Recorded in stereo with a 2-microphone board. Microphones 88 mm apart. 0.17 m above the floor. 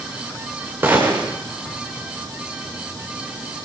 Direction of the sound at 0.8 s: 25° right (ahead or behind).